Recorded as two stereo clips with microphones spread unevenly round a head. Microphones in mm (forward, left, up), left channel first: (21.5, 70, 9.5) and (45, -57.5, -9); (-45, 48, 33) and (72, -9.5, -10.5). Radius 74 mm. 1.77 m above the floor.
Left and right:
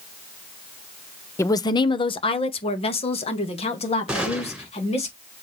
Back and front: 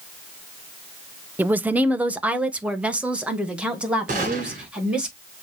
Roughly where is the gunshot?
Ahead.